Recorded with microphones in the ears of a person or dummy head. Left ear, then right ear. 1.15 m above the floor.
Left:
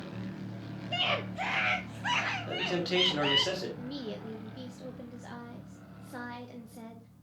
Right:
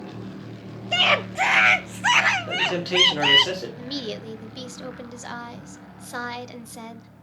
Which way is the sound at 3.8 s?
50° right (ahead or behind).